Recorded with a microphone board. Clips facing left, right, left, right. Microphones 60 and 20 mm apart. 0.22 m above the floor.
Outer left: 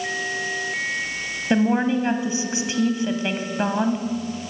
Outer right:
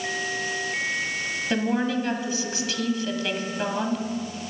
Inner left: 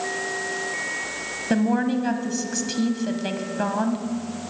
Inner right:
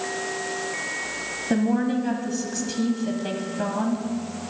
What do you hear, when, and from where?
1.5 s a woman speaking: 25° left (ahead or behind), 1.1 m